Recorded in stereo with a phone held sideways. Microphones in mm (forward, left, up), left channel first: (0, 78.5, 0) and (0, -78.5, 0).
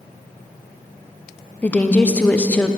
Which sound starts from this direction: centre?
A woman speaking, at 1.6 s.